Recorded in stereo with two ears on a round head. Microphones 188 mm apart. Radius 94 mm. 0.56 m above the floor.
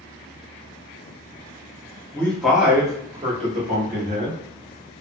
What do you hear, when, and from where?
2.1 s a man speaking: 10° left (ahead or behind), 1.0 m; by 4.4 s 50° right (ahead or behind), 1.6 m